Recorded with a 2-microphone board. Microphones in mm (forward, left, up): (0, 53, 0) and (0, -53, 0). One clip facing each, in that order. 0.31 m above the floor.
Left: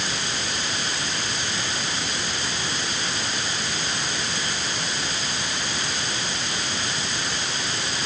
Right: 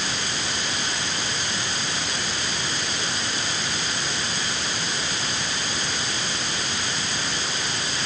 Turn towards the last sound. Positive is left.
No sound to turn to.